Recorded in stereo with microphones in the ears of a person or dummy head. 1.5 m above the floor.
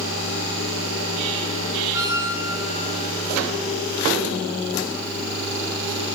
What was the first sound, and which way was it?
A squeak, 10° right (ahead or behind).